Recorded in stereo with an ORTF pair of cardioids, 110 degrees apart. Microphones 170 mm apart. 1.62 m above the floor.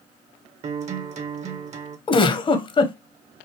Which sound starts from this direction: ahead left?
A giggle, at 2.1 s.